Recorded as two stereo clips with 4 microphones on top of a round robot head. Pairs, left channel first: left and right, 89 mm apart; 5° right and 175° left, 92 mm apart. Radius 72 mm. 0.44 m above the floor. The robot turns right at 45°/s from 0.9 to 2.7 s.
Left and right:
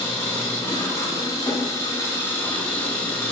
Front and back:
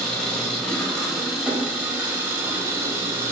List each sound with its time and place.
0.0 s an engine running: 70° left, 1.2 m; by 3.3 s 150° left, 1.2 m